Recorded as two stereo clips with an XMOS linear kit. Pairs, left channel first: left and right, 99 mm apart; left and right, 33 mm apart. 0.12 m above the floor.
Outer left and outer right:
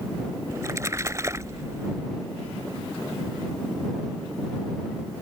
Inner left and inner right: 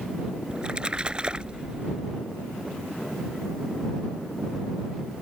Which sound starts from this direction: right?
A splash, at 0.5 s.